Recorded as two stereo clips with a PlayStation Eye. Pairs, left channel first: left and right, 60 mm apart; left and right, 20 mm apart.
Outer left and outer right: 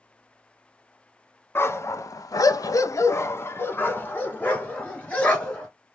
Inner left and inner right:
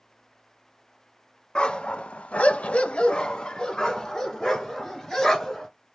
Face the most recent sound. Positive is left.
turn(degrees=20)  # may be behind; listen again after turning